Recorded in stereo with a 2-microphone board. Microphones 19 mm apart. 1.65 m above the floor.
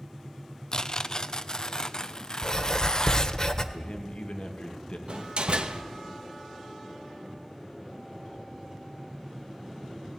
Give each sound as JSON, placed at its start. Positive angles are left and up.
{"t": 0.7, "sound": "tearing paper", "side_deg": 40, "distance_m": 0.7}
{"t": 2.4, "sound": "writing", "side_deg": 30, "distance_m": 1.5}
{"t": 3.7, "sound": "a man speaking", "side_deg": 60, "distance_m": 2.5}
{"t": 5.1, "sound": "a door slam", "side_deg": -60, "distance_m": 1.4}